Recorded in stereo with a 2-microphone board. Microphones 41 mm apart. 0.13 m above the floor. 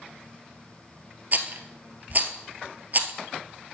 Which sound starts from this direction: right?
A rattle, at 1.3 s.